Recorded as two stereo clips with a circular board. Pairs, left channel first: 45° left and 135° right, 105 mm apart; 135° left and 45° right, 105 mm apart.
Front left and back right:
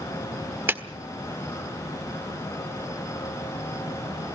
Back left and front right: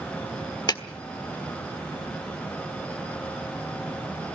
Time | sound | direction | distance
0.7 | a clap | 165° left | 1.4 m